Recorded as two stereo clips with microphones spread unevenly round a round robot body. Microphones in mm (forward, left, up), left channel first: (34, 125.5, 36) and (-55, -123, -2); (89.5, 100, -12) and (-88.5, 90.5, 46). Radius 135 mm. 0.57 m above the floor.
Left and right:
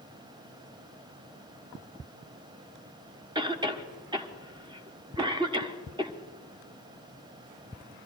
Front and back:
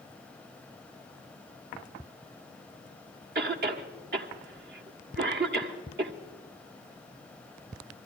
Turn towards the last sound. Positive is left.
turn(degrees=-165)